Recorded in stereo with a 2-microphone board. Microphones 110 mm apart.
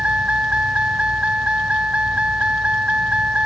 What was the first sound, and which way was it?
A vehicle, 10° right (ahead or behind).